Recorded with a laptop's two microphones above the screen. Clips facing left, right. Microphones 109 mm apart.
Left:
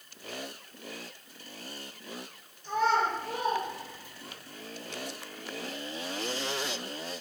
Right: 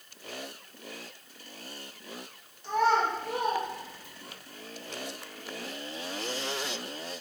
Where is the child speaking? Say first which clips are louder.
Right 2 dB; 85° right, 1.2 m; by 4.4 s 55° right (ahead or behind), 1.4 m.